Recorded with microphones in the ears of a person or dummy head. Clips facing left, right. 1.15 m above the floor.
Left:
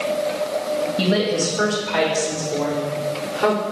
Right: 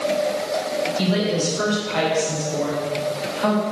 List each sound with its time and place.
1.0 s a woman speaking: 60° left (ahead or behind), 1.9 m; by 3.6 s 85° left, 3.5 m